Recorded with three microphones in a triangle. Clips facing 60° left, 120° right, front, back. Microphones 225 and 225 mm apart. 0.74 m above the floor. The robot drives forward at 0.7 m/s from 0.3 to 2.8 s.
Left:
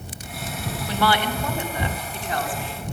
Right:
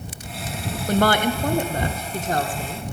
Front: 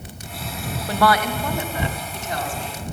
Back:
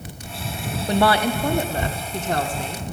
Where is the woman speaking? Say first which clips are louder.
Right 4 dB, back 2 dB; 120° right, 0.8 m; by 2.8 s 160° right, 1.8 m.